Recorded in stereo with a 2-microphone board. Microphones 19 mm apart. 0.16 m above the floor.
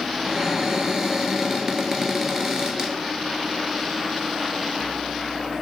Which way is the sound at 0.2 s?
30° right (ahead or behind).